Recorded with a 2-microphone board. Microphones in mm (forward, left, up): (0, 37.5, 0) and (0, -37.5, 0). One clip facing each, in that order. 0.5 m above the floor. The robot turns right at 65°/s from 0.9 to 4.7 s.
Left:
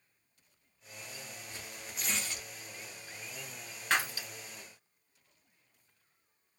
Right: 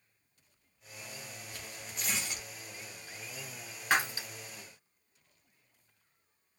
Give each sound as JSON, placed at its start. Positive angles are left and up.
{"t": 1.5, "sound": "tearing paper", "side_deg": 25, "distance_m": 0.7}
{"t": 3.9, "sound": "breaking glass", "side_deg": -15, "distance_m": 0.7}